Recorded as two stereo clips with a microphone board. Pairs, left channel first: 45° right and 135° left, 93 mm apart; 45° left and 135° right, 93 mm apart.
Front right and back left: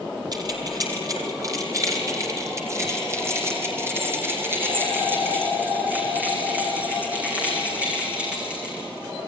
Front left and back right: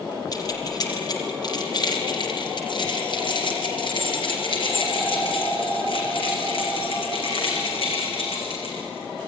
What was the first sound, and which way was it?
Keys jangling, 90° left.